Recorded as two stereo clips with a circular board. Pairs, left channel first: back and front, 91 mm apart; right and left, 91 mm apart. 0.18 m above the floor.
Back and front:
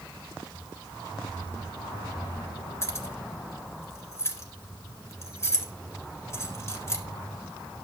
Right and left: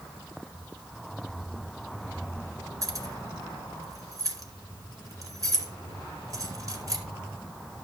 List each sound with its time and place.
2.8 s keys jangling: 130° left, 1.7 m